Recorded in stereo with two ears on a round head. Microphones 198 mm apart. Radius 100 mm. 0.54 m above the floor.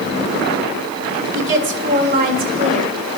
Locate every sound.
1.4 s a woman speaking: 60° right (ahead or behind), 1.8 m; by 3.0 s 25° right (ahead or behind), 2.5 m